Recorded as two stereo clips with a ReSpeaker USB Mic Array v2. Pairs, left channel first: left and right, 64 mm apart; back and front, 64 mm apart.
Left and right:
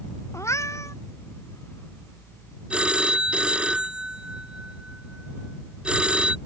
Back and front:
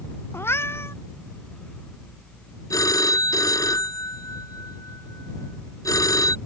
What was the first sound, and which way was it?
A cat meowing, 130° left.